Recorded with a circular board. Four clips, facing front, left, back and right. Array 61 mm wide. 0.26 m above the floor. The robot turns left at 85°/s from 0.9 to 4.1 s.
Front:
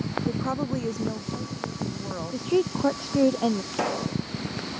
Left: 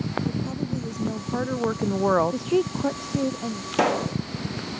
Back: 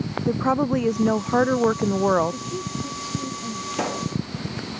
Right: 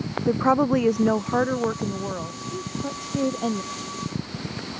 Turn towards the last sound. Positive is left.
turn(degrees=70)